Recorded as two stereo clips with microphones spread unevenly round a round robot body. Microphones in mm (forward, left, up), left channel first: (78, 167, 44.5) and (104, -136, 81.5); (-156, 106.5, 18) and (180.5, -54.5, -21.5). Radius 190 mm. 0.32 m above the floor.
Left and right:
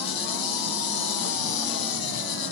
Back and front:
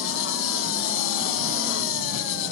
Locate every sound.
0.0 s an insect: 95° left, 0.8 m